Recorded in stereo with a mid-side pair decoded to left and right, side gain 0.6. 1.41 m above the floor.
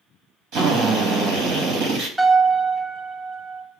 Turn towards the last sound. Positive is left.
turn(degrees=-25)